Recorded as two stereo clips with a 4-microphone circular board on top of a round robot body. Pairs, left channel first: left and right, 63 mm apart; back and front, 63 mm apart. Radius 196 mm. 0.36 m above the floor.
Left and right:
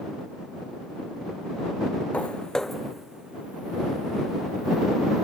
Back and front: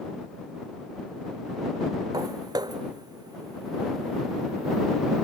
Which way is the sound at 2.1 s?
20° left.